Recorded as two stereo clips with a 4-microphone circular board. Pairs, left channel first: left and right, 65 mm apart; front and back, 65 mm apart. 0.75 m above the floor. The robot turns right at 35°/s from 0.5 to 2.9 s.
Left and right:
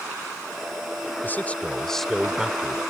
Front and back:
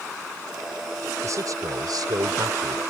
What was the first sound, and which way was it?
A man speaking, 145° left.